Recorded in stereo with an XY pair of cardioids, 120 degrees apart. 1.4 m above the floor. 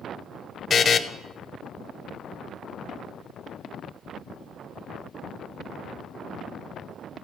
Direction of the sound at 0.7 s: 35° left.